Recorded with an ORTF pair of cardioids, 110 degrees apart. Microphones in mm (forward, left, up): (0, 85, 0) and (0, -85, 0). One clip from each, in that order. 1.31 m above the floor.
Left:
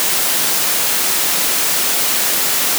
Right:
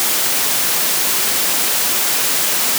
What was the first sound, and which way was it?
Only background noise.